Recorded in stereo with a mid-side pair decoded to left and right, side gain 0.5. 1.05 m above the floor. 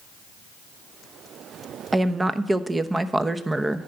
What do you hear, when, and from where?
1.9 s a woman speaking: 15° right, 0.8 m